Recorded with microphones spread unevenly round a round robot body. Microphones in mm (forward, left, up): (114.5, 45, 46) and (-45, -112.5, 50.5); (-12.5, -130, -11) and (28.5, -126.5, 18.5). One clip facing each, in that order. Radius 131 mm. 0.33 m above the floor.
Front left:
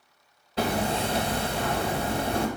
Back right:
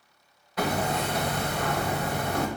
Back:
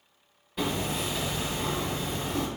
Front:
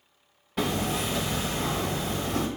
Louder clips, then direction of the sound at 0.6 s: Front left 1 dB, front 2 dB; 15° right.